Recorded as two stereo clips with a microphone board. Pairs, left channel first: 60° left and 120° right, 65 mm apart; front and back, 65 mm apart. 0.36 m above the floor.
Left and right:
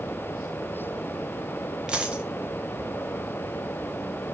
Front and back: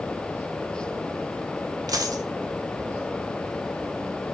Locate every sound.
1.9 s a dropped coin: 165° left, 0.6 m